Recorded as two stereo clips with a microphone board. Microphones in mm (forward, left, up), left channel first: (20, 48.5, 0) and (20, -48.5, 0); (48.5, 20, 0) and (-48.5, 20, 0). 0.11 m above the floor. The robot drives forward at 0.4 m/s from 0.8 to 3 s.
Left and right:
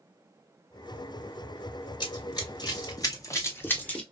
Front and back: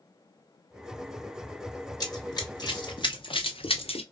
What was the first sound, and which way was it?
Running footsteps, 50° left.